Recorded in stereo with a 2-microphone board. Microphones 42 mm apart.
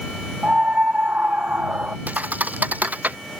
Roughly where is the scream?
Right.